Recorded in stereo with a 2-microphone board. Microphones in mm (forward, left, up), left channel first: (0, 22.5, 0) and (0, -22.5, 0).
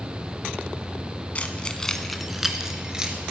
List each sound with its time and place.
1.4 s keys jangling: 35° left (ahead or behind), 1.0 m; by 3.2 s 20° right (ahead or behind), 2 m